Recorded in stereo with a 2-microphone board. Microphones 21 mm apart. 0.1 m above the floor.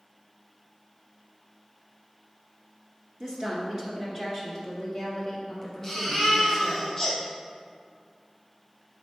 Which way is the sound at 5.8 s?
Centre (ahead or behind).